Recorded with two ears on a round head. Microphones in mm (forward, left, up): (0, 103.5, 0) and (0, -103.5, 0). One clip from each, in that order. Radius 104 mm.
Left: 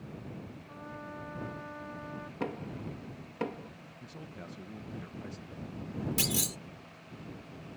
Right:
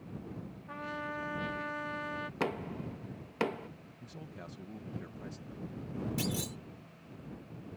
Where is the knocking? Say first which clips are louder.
Right 1 dB; 50° right (ahead or behind).